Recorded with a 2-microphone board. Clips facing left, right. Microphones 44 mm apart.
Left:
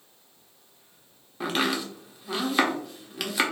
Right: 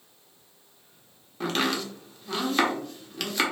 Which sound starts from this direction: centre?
Chopping, at 1.4 s.